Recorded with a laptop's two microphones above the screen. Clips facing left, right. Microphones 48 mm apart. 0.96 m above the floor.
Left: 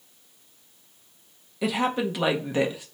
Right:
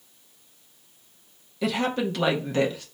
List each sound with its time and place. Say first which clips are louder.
1.6 s a woman speaking: even; 10° left (ahead or behind), 0.8 m